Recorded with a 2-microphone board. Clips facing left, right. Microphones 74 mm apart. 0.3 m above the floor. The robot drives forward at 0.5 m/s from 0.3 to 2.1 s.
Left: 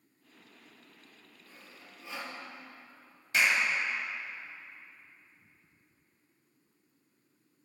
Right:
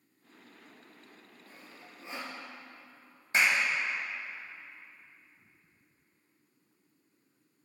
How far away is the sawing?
About 1.8 m.